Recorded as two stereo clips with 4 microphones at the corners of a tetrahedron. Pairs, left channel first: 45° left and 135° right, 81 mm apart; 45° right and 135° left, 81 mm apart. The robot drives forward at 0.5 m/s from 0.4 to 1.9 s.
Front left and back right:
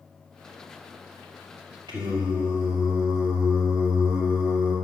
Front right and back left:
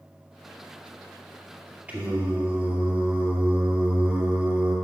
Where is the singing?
155° right, 2 m.